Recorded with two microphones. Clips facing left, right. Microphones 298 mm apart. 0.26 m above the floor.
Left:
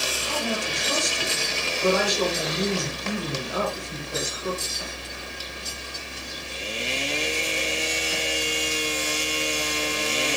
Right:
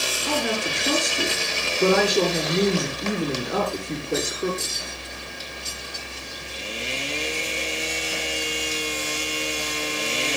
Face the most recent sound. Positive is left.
turn(degrees=-70)  # may be behind; listen again after turning